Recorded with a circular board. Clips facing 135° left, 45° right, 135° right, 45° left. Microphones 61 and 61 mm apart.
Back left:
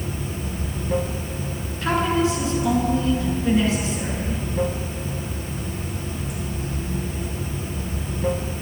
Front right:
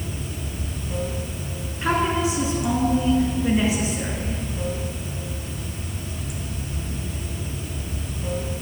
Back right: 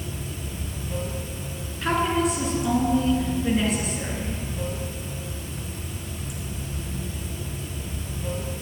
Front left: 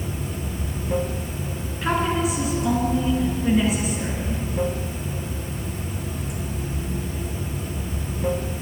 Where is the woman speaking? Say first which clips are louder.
Back left 1 dB, even; 35° right, 1.2 m.